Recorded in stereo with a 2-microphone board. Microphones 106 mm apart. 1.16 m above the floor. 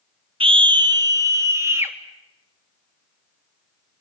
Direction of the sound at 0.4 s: 55° right (ahead or behind).